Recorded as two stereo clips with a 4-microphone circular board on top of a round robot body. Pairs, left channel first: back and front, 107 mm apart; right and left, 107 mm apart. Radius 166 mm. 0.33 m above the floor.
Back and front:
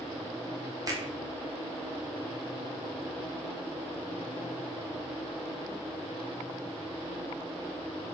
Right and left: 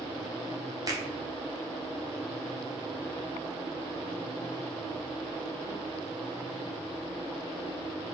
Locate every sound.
0.9 s a finger snap: 45° left, 2.0 m